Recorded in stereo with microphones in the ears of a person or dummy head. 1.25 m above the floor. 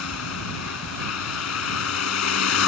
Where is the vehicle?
85° left.